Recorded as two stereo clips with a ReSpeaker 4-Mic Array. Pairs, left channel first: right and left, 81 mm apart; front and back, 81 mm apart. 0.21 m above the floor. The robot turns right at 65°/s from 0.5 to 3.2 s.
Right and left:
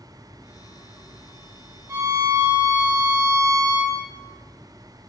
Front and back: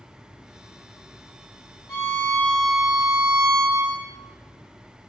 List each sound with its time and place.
1.9 s a violin: 40° left, 4 m; by 4.0 s 125° left, 4 m